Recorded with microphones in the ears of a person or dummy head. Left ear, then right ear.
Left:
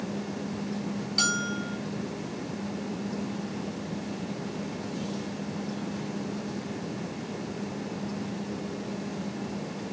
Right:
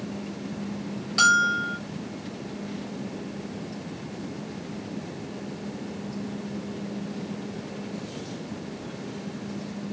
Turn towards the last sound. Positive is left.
turn(degrees=-15)  # may be behind; listen again after turning